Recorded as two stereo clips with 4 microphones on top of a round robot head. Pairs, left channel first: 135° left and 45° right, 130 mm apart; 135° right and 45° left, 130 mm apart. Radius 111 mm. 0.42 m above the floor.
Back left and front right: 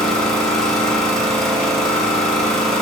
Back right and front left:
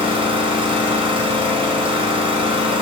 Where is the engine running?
50° left, 0.9 m.